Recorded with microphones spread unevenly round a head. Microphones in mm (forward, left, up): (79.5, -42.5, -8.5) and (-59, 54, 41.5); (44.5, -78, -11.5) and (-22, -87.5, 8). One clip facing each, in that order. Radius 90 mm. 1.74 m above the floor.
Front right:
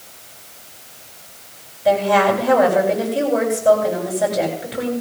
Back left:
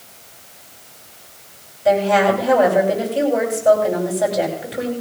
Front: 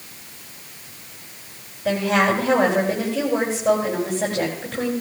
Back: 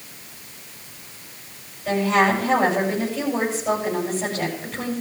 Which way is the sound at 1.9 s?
55° left.